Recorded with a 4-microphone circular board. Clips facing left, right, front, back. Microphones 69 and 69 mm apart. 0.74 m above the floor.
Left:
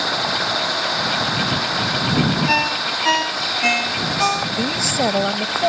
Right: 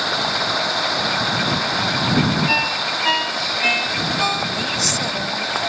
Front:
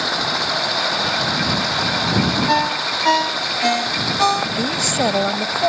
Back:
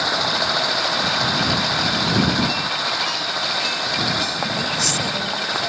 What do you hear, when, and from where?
2.5 s a ringtone: 10° left
4.6 s a woman speaking: 40° left